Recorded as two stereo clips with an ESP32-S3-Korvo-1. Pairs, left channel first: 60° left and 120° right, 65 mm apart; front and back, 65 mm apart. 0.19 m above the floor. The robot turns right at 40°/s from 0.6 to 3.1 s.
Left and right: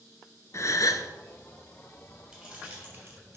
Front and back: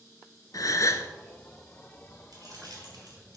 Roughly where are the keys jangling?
Behind left.